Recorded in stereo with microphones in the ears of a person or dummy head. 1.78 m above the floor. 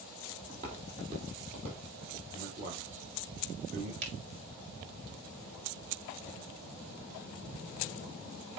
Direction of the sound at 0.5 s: 45° right (ahead or behind).